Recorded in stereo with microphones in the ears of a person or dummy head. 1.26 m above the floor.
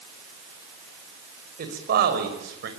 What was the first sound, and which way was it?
A man speaking, 55° right (ahead or behind).